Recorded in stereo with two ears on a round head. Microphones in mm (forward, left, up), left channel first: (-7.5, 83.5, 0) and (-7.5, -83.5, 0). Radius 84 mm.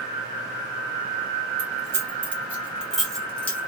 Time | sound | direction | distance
1.6 | keys jangling | 15° right (ahead or behind) | 2 m